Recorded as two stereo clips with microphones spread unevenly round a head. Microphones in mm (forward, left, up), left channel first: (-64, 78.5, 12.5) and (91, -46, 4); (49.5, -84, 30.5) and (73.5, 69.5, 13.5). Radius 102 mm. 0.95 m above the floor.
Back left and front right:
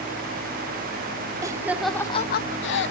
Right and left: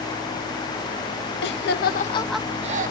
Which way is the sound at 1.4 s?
110° right.